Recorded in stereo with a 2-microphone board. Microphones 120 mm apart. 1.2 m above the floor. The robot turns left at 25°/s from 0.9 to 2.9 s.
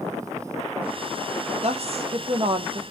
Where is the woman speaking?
60° right (ahead or behind), 0.5 m; by 2.8 s 40° right (ahead or behind), 0.5 m.